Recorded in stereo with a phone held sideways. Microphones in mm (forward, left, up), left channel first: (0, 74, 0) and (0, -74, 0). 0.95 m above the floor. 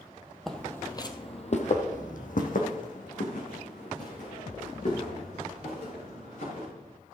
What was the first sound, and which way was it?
Footsteps, centre (ahead or behind).